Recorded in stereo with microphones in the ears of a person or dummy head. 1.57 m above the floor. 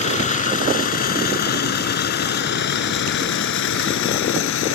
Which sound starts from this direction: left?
A vehicle, at 0.0 s.